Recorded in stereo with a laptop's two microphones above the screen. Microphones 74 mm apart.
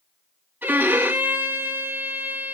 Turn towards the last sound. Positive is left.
turn(degrees=-25)  # may be behind; listen again after turning